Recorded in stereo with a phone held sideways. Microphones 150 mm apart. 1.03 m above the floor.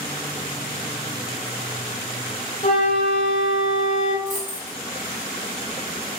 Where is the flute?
45° left (ahead or behind), 0.7 m.